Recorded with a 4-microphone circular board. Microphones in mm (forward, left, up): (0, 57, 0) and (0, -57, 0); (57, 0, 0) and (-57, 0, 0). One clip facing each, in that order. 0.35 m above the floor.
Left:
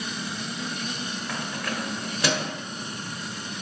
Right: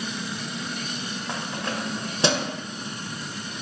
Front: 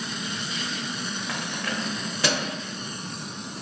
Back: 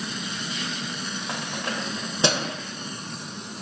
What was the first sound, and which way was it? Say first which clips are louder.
Keys jangling: right 3 dB, back 1 dB; 135° right.